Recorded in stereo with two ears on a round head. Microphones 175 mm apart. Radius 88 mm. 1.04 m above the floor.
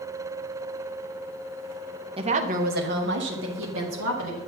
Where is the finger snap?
No finger snap in this recording.